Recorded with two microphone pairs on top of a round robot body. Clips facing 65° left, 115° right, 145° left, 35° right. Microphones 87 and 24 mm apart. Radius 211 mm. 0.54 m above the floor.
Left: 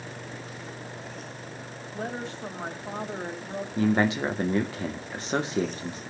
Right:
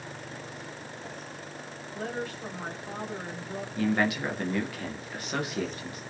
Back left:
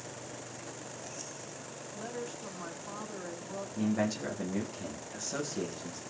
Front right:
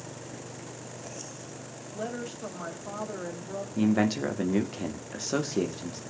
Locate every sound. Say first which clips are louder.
1.9 s a woman speaking: left 1 dB, front right 5 dB; straight ahead, 4.5 m
3.8 s a man speaking: left 3 dB, front right 6 dB; 5° left, 2.5 m